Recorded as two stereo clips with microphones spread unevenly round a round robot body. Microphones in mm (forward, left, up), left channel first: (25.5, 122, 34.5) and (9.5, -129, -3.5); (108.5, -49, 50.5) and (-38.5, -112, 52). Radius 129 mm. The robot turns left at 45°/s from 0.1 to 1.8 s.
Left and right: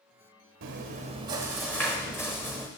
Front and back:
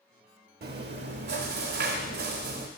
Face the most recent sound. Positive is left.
turn(degrees=170)